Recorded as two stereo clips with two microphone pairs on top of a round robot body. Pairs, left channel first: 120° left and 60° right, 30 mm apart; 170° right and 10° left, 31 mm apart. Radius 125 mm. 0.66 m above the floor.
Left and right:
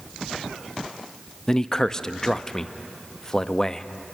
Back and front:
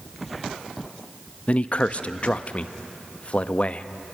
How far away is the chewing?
I don't hear chewing.